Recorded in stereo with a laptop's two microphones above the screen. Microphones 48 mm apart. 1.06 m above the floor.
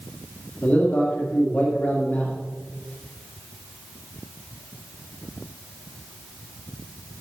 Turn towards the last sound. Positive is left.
turn(degrees=40)  # may be behind; listen again after turning